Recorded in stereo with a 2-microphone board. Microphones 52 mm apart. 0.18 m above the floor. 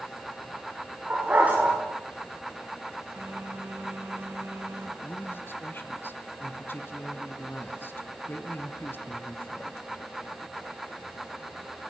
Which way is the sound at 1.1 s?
30° right (ahead or behind).